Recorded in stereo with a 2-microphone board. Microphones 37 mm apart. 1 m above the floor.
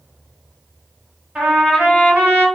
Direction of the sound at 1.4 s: 30° right (ahead or behind).